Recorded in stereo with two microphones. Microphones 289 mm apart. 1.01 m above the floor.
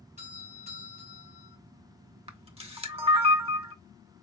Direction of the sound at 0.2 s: 25° right (ahead or behind).